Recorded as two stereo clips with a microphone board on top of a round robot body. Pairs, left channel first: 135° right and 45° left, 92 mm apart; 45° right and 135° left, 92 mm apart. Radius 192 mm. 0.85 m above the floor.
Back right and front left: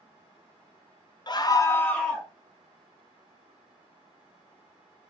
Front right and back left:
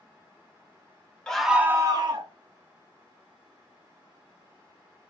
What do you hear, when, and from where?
1.3 s a scream: 125° right, 0.8 m; by 2.3 s 130° left, 0.9 m